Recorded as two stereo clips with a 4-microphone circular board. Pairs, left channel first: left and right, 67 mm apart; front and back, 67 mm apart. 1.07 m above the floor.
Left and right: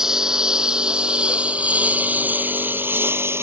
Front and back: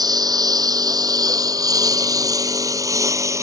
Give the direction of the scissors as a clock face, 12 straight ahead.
I don't hear scissors.